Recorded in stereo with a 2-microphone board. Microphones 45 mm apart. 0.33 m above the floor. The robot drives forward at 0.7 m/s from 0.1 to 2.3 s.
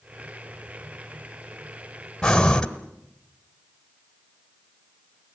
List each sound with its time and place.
2.2 s breathing: 10° left (ahead or behind), 1.2 m; by 2.7 s 15° left (ahead or behind), 1.1 m